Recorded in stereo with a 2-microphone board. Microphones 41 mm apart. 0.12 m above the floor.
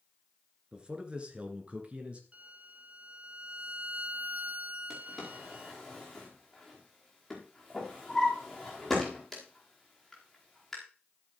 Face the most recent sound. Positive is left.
turn(degrees=5)  # may be behind; listen again after turning